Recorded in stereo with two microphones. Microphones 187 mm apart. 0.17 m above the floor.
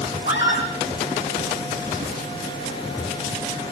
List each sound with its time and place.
0.2 s a scream: 70° left (ahead or behind), 9.5 m